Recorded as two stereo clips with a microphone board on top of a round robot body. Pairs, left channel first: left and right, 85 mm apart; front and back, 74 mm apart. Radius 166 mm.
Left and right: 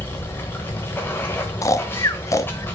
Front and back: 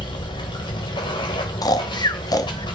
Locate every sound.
0.0 s running water: 25° left, 0.8 m
1.6 s snoring: 35° left, 1.0 m